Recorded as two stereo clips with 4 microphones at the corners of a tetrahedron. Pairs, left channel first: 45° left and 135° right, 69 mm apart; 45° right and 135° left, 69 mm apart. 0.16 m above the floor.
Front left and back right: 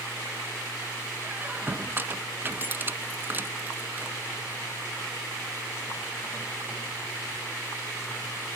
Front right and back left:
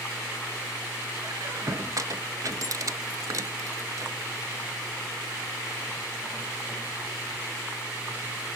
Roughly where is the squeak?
Behind.